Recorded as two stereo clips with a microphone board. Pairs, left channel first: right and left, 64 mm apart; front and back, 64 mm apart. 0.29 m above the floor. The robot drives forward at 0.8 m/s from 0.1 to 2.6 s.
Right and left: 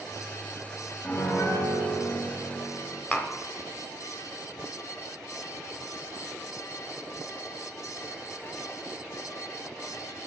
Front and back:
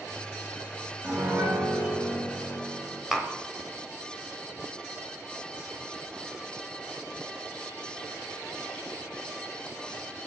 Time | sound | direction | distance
1.0 | a piano | 125° right | 2 m
3.1 | tapping | 110° right | 0.8 m